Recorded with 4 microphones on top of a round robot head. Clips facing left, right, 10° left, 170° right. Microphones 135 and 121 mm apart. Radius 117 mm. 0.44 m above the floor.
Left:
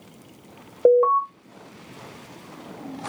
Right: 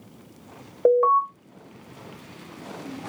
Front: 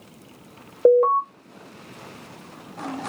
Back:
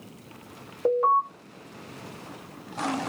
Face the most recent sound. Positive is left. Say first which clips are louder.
# left 2 dB, front 7 dB
turn(degrees=25)